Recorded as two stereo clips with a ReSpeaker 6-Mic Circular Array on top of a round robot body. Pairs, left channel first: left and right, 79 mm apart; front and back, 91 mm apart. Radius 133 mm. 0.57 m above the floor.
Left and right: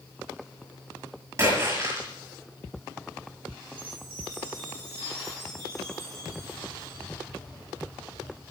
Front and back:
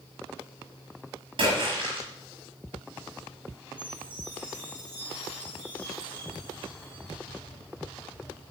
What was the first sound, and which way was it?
A splash, 150° right.